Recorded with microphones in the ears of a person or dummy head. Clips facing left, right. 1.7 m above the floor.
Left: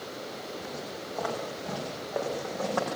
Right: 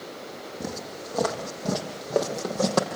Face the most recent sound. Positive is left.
turn(degrees=-60)  # may be behind; listen again after turning